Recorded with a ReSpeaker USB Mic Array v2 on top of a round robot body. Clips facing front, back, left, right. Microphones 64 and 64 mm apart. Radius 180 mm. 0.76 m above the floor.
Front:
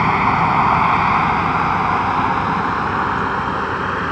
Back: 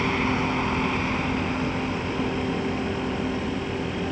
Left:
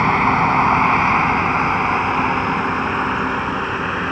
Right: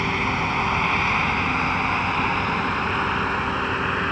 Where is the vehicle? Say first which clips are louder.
Front 9 dB, left 8 dB; 40° left; by 4.1 s 5° left.